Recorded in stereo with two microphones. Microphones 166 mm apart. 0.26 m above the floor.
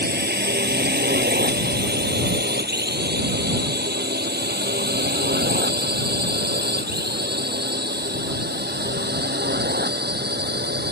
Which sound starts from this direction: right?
A drone, at 0.0 s.